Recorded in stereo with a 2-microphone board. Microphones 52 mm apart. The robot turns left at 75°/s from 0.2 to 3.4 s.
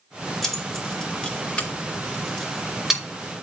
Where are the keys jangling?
5° left (ahead or behind), 0.5 m; by 3.0 s 10° right (ahead or behind), 0.5 m.